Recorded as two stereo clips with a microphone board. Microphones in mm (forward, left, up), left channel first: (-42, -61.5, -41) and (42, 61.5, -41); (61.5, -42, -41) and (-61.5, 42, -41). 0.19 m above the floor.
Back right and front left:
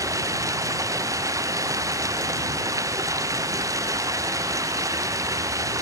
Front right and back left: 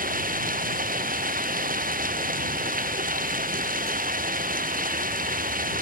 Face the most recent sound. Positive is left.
turn(degrees=125)